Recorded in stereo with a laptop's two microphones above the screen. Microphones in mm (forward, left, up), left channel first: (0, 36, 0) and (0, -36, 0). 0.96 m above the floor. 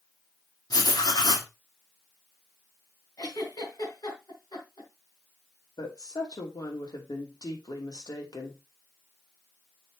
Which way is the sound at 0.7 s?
75° left (ahead or behind).